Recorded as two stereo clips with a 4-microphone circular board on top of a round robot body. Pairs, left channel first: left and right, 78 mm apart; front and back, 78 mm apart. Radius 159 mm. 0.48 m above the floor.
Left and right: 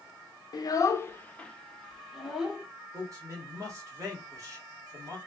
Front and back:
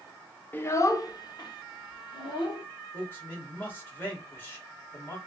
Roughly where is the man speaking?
Ahead right.